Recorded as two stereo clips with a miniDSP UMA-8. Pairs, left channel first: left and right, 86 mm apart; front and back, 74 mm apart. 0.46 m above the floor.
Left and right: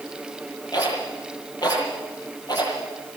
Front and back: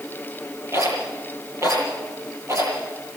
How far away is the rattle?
About 9.5 m.